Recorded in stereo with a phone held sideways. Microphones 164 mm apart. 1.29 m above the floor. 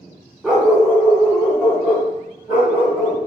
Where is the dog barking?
5° right (ahead or behind), 1.0 m.